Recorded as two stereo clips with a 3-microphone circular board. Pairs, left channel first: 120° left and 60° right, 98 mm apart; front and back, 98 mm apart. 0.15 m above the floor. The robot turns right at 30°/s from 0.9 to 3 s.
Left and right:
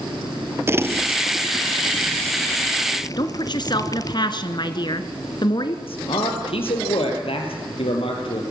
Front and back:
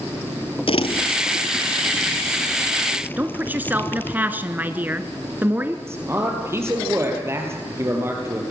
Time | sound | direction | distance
0.7 | crumpling | 5° left | 1.0 m
3.2 | a woman speaking | 115° left | 1.5 m
5.9 | a man speaking | 120° left | 4 m